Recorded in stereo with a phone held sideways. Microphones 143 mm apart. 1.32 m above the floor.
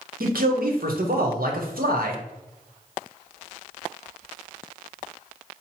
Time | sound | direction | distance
0.2 | a man speaking | 75° right (ahead or behind) | 1.0 m